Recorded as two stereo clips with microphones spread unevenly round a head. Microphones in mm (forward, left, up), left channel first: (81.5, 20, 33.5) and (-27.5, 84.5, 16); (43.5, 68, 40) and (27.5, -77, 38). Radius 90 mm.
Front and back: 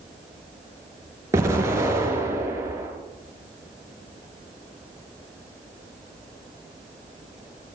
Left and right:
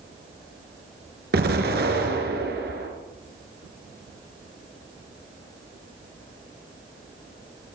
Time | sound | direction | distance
1.3 | an explosion | 135° right | 4 m